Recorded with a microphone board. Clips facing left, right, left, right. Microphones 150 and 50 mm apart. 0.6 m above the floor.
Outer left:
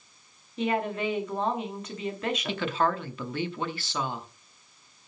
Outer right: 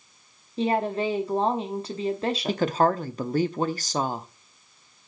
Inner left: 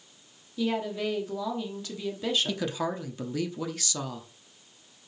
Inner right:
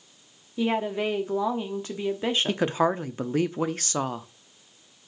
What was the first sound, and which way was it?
A woman speaking, 30° right (ahead or behind).